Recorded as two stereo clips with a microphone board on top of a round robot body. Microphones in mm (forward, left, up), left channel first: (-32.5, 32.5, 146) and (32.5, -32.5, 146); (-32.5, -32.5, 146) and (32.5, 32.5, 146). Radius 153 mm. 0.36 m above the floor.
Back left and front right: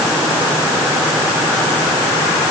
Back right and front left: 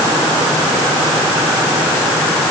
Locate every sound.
Only background noise.